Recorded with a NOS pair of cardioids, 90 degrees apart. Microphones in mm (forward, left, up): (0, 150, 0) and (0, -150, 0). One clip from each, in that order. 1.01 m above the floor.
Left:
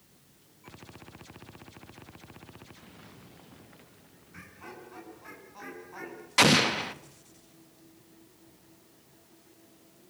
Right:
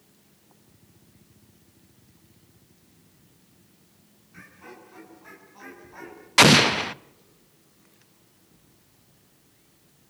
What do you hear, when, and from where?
4.3 s laughter: 25° left, 9.5 m; by 6.3 s 15° left, 10.5 m
6.4 s an explosion: 30° right, 0.8 m